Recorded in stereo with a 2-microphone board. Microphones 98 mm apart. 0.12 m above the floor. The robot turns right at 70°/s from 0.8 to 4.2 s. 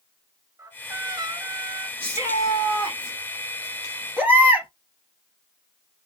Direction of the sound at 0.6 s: 135° right.